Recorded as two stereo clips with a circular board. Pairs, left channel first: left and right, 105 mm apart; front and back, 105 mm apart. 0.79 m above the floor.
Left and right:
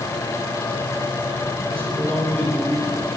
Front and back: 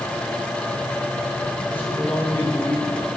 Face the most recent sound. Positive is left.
turn(degrees=-70)